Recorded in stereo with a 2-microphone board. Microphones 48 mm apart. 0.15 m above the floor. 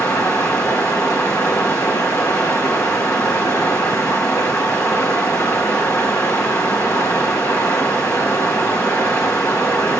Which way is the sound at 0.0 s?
60° left (ahead or behind).